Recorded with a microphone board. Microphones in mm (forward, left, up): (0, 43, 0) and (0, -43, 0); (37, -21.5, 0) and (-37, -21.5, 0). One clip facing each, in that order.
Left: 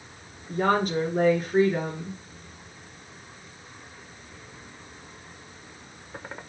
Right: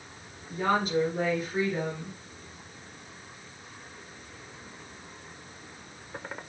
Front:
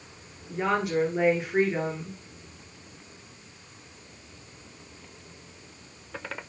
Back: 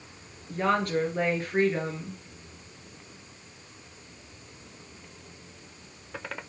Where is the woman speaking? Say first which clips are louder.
Left 3 dB, even; 80° left, 2.5 m.